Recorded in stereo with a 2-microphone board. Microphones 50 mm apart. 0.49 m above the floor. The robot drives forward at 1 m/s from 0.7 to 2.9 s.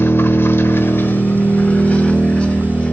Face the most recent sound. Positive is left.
turn(degrees=20)  # may be behind; listen again after turning